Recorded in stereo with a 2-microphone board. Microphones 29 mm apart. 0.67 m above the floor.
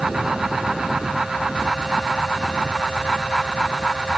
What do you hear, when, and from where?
Only background noise.